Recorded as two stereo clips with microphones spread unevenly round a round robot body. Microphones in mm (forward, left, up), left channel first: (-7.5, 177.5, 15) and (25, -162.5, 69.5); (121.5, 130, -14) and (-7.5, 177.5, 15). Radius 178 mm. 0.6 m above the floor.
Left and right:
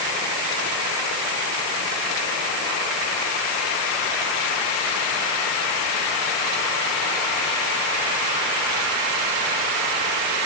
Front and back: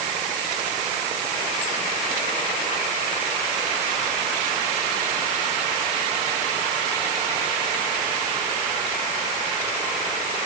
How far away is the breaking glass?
I don't hear breaking glass.